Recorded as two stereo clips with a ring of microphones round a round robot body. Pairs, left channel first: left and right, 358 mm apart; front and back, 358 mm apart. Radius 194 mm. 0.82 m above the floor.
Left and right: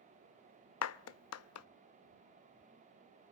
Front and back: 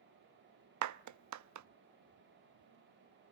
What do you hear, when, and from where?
0.8 s a clap: 140° left, 0.7 m